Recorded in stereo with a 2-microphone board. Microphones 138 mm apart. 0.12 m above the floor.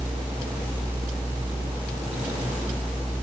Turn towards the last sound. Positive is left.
No sound to turn to.